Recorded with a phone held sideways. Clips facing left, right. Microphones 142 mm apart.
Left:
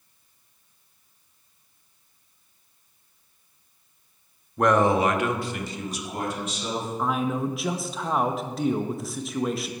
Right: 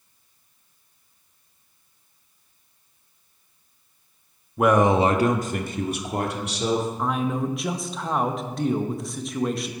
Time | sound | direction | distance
4.6 | a man speaking | 5° right (ahead or behind) | 0.9 m
7.0 | a man speaking | centre (ahead or behind) | 0.8 m